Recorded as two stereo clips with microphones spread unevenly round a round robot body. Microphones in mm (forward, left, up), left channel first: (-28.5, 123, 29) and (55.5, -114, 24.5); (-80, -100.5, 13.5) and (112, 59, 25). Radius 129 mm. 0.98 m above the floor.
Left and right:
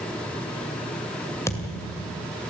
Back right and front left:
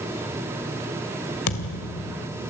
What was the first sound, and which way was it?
A thud, 170° right.